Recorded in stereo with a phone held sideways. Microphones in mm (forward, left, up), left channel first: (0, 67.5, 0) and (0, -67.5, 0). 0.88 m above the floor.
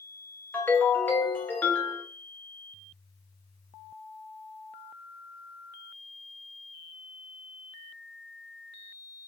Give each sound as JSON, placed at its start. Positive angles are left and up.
{"t": 0.5, "sound": "a ringtone", "side_deg": 10, "distance_m": 0.7}